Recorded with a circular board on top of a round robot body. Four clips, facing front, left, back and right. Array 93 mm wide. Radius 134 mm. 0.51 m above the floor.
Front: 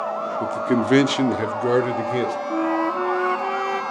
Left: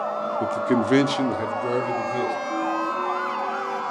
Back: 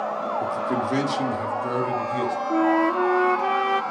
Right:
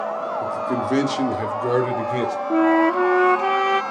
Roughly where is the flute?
Right.